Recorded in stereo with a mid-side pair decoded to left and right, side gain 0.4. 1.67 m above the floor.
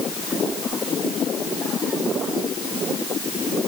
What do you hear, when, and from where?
Only background noise.